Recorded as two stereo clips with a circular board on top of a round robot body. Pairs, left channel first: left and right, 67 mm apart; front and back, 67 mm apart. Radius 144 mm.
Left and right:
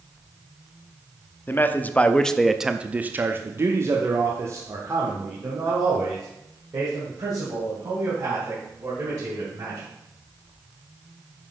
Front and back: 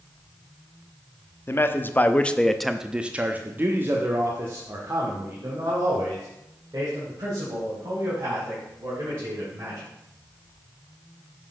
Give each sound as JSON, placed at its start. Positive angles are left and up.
{"t": 1.5, "sound": "a man speaking", "azimuth_deg": 45, "distance_m": 0.9}